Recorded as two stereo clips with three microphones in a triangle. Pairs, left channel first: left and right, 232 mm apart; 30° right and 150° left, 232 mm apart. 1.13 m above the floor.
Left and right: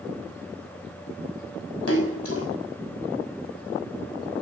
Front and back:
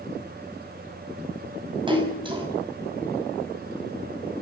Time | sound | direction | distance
1.9 | a splash | 80° left | 5.5 m